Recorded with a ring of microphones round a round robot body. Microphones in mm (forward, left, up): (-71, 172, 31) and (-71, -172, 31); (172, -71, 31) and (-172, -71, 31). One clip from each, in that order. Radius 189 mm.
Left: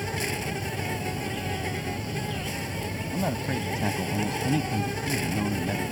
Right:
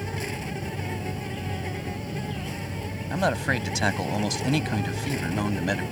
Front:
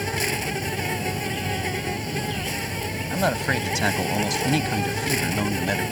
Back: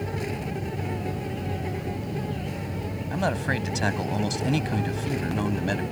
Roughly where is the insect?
Ahead.